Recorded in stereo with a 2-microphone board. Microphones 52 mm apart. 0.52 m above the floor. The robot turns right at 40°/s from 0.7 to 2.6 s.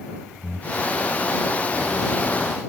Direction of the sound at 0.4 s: 25° left (ahead or behind).